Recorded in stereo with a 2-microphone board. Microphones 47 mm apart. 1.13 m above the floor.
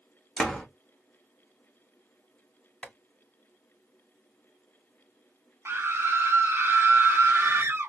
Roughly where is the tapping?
Left.